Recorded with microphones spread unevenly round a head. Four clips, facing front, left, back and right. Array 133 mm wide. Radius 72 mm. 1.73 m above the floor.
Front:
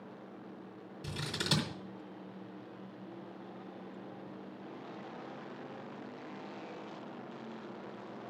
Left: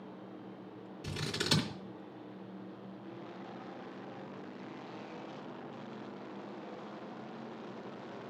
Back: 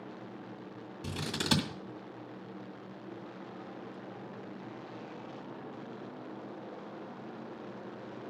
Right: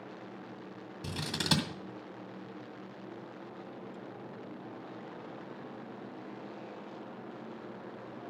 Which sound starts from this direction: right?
Scissors, at 1.0 s.